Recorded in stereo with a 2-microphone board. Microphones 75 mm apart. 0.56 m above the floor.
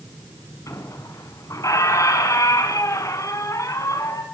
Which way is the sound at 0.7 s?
45° left (ahead or behind).